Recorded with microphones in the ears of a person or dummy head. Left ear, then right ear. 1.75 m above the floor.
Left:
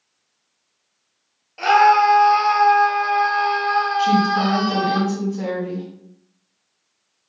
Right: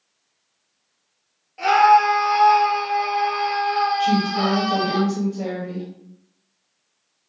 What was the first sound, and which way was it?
A scream, 20° left (ahead or behind).